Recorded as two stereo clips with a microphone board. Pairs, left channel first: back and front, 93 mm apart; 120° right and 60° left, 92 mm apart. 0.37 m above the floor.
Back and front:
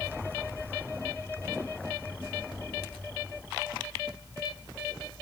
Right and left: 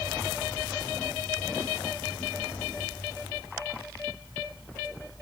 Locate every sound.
Only background noise.